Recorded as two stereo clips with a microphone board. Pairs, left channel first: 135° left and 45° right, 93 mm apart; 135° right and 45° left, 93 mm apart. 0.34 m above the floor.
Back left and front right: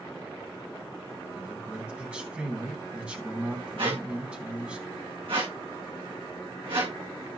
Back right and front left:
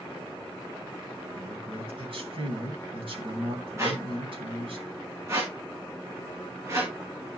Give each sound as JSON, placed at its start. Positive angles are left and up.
{"t": 1.4, "sound": "a man speaking", "azimuth_deg": 35, "distance_m": 3.0}
{"t": 3.8, "sound": "a squeak", "azimuth_deg": -15, "distance_m": 3.0}